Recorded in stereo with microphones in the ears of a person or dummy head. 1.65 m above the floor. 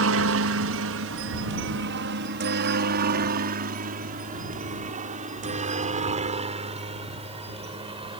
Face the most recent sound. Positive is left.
turn(degrees=-25)  # may be behind; listen again after turning